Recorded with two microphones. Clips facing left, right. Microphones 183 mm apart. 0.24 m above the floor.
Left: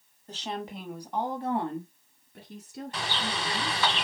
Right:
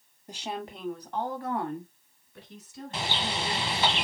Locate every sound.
0.3 s a woman speaking: 15° right (ahead or behind), 1.4 m; by 3.8 s 65° left (ahead or behind), 3 m
2.9 s a bird: 25° right (ahead or behind), 1.1 m